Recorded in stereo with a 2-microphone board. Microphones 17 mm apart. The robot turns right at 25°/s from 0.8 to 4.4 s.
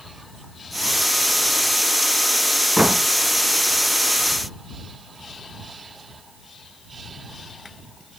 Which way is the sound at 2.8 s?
65° right (ahead or behind).